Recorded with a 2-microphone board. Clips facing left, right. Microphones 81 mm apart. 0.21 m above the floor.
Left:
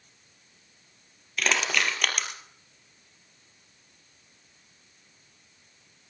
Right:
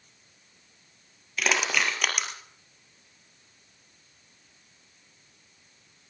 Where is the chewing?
No chewing in this recording.